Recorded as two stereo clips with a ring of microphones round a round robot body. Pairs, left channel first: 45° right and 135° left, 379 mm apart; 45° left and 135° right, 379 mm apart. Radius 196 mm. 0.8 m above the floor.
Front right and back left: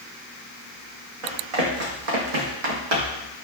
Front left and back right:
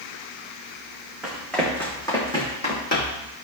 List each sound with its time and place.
1.2 s running footsteps: 135° left, 3 m; by 3.3 s 110° left, 2.5 m